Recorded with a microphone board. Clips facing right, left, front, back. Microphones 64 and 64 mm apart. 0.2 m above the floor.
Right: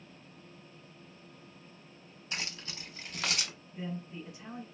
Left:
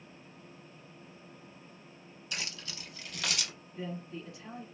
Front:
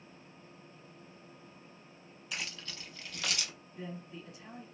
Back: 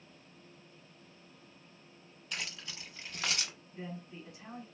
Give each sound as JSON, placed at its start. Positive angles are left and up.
{"t": 2.3, "sound": "keys jangling", "azimuth_deg": -80, "distance_m": 0.8}
{"t": 3.7, "sound": "a man speaking", "azimuth_deg": -145, "distance_m": 1.8}